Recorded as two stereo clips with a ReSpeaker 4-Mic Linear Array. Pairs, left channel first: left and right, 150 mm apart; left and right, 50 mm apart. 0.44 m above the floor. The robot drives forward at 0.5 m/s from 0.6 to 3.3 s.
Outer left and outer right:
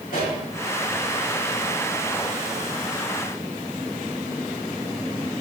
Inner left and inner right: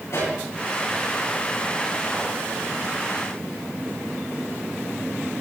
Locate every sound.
0.1 s a pop: 75° left (ahead or behind), 6 m